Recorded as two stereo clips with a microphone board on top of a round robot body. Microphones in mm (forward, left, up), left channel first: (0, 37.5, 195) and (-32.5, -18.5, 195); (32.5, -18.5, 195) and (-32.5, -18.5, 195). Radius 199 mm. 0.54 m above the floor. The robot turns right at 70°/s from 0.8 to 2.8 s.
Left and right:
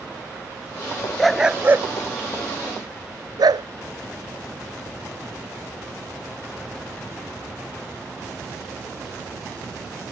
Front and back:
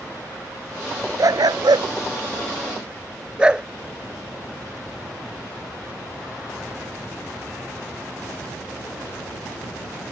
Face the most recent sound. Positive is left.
turn(degrees=-105)